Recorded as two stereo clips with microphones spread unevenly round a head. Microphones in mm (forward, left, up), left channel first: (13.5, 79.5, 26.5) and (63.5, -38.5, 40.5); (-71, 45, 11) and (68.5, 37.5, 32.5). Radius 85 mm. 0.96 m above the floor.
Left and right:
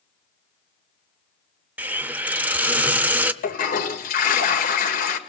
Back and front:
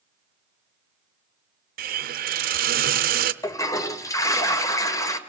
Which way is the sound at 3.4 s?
105° left.